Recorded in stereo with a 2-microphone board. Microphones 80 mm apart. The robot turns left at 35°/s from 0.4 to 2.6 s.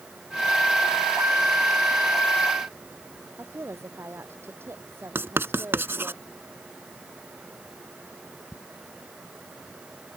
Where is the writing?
30° right (ahead or behind).